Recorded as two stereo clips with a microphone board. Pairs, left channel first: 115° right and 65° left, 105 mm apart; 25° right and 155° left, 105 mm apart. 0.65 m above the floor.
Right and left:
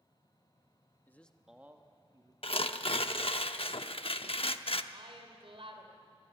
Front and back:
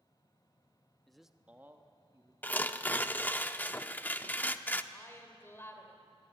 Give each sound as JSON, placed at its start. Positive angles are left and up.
{"t": 1.1, "sound": "a man speaking", "azimuth_deg": -105, "distance_m": 1.0}
{"t": 2.4, "sound": "tearing paper", "azimuth_deg": -95, "distance_m": 0.7}
{"t": 4.9, "sound": "a woman speaking", "azimuth_deg": 45, "distance_m": 2.5}